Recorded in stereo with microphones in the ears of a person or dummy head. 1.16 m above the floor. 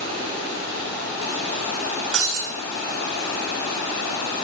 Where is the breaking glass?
60° right (ahead or behind), 2.5 m.